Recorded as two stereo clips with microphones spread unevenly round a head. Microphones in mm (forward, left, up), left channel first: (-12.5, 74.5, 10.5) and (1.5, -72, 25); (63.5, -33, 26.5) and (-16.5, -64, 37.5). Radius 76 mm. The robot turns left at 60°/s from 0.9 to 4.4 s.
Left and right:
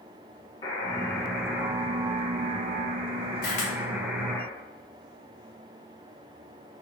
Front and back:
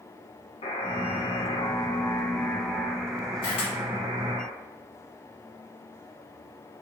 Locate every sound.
0.6 s a buzzer: 30° left, 0.7 m; by 4.4 s straight behind, 0.7 m
3.4 s a camera shutter: 65° left, 0.9 m; by 3.7 s 45° left, 0.9 m